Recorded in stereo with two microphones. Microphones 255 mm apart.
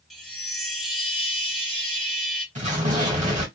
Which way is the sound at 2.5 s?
30° right (ahead or behind).